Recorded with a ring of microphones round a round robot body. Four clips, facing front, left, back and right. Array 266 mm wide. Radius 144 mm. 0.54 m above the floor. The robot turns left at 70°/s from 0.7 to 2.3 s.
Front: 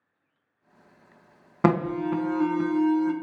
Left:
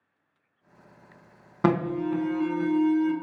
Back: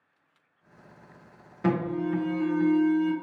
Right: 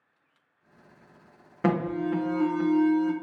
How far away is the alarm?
About 0.9 m.